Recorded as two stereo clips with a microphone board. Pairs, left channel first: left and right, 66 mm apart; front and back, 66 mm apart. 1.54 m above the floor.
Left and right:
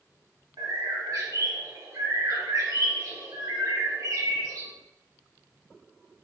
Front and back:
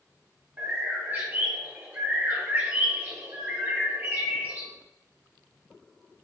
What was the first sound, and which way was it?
A bird, 120° right.